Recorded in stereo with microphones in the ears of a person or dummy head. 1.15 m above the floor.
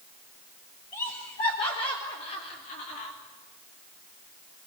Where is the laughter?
20° left (ahead or behind), 5.5 m; by 3.1 s 45° left (ahead or behind), 3.5 m.